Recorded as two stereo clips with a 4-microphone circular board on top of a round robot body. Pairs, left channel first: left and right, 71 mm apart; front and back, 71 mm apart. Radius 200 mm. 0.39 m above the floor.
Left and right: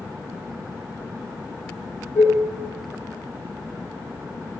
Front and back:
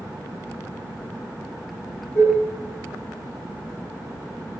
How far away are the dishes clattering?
About 1.7 m.